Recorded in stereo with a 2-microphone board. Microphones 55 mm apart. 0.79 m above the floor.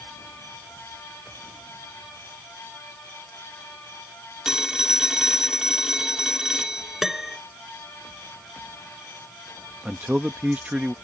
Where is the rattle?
I don't hear a rattle.